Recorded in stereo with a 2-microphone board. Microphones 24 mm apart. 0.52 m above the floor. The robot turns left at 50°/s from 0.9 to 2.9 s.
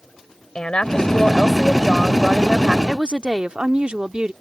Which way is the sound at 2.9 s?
40° right (ahead or behind).